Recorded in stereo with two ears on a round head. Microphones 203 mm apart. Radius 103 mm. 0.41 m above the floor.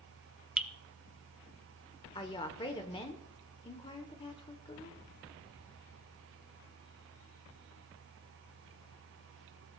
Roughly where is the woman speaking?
Left.